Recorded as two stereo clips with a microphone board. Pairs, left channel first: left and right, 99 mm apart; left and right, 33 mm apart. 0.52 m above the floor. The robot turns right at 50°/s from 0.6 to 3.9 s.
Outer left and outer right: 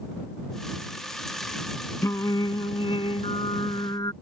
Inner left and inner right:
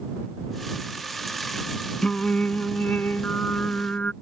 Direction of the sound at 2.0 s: 35° left.